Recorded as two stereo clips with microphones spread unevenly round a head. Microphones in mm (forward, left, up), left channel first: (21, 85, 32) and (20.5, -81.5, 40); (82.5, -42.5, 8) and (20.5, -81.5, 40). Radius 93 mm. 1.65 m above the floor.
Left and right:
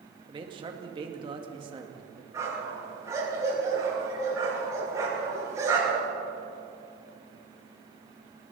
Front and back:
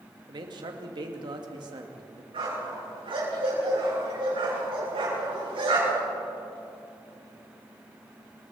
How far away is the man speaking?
About 2 m.